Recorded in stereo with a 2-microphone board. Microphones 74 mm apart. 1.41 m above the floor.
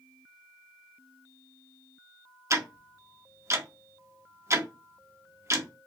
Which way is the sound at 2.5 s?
40° right (ahead or behind).